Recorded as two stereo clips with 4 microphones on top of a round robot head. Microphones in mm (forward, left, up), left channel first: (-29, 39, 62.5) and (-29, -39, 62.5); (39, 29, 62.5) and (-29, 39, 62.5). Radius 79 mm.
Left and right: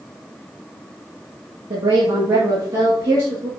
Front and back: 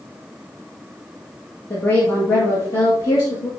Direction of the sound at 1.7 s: 65° right.